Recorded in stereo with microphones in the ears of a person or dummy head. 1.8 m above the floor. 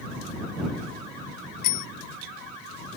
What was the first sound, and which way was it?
A bicycle bell, 45° left (ahead or behind).